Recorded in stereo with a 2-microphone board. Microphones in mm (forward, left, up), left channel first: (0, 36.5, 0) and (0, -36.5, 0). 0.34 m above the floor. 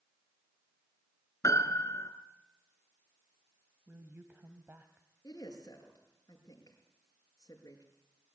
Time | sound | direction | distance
1.4 | a piano | 50° left (ahead or behind) | 2.5 m
3.9 | a woman speaking | 30° right (ahead or behind) | 1.7 m
5.2 | a woman speaking | 55° left (ahead or behind) | 6 m